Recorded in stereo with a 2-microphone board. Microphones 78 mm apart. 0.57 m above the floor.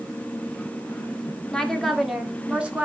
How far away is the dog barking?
I don't hear a dog barking.